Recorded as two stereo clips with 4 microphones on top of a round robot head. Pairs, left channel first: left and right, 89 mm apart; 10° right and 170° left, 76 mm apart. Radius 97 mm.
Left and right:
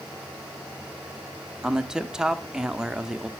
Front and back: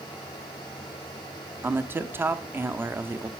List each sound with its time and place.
1.6 s a man speaking: 165° right, 1.0 m